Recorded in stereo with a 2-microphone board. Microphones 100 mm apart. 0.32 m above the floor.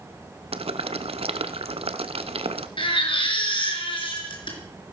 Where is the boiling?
80° right, 1.0 m.